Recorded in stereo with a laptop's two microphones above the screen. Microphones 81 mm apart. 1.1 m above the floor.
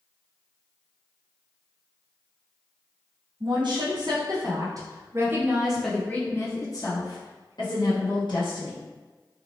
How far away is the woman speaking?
About 1.5 m.